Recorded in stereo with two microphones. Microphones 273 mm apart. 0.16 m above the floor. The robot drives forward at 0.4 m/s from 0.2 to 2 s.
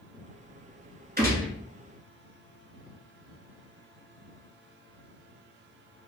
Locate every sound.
1.2 s a gunshot: 35° right (ahead or behind), 1.3 m